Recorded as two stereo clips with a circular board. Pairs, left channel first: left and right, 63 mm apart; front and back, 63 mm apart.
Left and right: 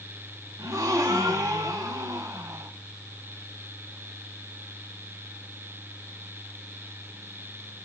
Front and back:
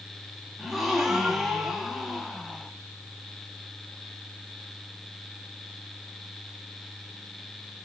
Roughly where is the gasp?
Right.